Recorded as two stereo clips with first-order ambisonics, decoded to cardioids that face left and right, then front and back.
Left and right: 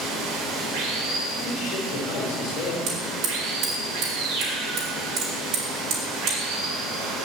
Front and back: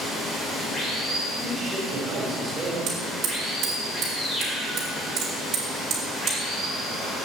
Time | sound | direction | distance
0.0 | running water | 70° right | 1.9 m
1.4 | a man speaking | 115° left | 2.5 m
2.9 | hammering | 130° right | 2.5 m